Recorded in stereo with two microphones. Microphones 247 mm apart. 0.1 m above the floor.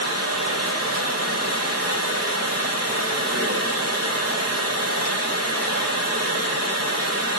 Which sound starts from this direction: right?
Running water, at 0.0 s.